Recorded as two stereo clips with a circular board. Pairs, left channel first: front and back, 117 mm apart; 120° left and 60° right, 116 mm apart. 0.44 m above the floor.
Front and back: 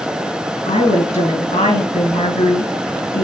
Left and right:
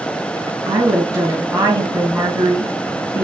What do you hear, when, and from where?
0.7 s a woman speaking: 5° right, 4.5 m